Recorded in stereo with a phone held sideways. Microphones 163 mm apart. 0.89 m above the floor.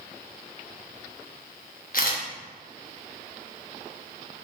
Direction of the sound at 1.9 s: 60° left (ahead or behind).